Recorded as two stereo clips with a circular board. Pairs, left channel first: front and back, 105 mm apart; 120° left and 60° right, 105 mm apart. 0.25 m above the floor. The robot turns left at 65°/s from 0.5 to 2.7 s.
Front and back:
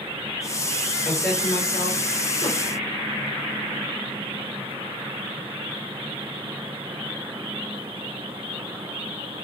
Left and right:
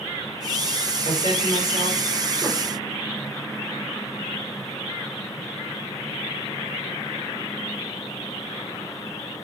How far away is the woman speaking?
About 5 m.